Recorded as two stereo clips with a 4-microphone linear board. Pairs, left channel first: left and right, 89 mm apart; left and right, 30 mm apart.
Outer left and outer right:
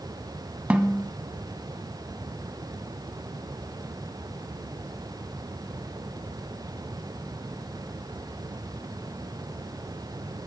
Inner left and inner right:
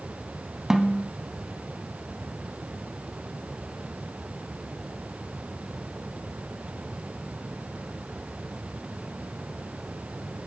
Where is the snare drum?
15° right (ahead or behind), 0.5 m.